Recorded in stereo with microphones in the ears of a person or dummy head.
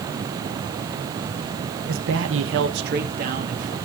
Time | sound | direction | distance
1.9 | a man speaking | 60° right (ahead or behind) | 1.1 m